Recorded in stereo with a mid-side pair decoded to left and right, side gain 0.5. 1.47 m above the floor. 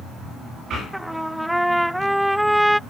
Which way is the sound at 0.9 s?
Straight ahead.